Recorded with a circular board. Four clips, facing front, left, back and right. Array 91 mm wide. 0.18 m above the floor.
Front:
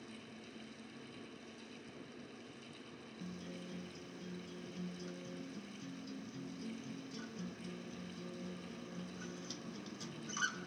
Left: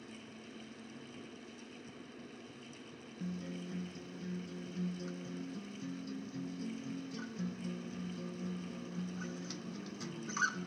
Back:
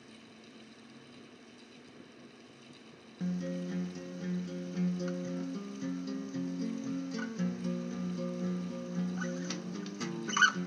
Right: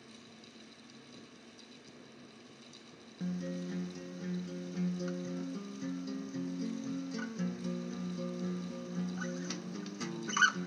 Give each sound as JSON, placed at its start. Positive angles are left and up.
{"t": 3.2, "sound": "a guitar", "azimuth_deg": -150, "distance_m": 0.5}